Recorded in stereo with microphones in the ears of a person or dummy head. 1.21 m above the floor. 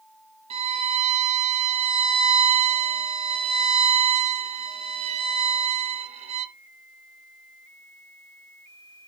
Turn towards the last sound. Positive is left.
turn(degrees=-35)  # may be behind; listen again after turning